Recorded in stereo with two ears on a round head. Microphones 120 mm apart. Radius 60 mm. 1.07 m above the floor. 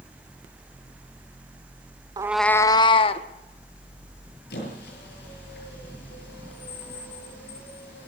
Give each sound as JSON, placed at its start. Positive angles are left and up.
{"t": 2.2, "sound": "a cat meowing", "side_deg": -30, "distance_m": 0.5}
{"t": 4.5, "sound": "a squeak", "side_deg": 80, "distance_m": 9.5}